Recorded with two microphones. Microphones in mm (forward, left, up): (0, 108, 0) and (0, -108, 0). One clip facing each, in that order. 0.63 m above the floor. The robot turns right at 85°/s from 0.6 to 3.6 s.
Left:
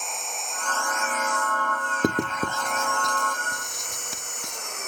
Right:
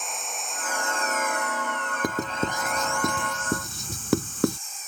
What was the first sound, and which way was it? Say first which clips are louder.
An engine running: even; straight behind.